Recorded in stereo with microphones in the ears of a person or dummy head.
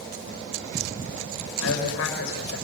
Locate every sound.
1.6 s a man speaking: 90° left, 6.5 m